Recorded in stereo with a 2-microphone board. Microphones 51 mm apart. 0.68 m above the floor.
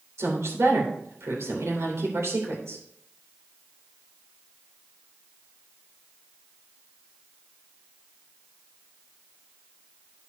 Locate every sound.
0.2 s a woman speaking: 70° right (ahead or behind), 3 m